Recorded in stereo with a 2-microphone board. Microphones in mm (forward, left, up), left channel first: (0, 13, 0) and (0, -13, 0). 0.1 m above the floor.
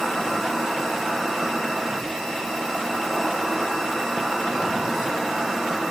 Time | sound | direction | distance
0.0 | an insect | 10° right (ahead or behind) | 1.1 m